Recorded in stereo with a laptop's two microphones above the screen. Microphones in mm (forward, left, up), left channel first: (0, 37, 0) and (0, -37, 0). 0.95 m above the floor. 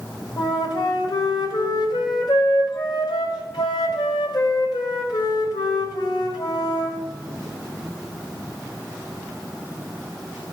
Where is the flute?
75° left (ahead or behind), 1.7 m.